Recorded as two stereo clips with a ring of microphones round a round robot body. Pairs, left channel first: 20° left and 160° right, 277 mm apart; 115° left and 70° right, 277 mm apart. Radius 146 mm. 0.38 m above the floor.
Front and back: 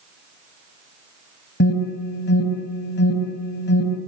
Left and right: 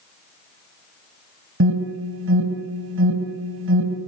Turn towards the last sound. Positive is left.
turn(degrees=-25)